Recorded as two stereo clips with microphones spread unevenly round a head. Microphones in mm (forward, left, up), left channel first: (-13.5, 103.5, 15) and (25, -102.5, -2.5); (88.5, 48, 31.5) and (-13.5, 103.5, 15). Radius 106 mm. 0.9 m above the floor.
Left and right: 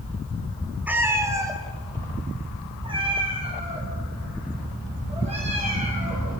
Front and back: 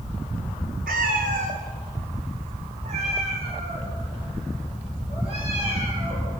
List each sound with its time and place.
0.9 s a cat meowing: 165° right, 1.6 m; by 6.3 s 145° right, 7 m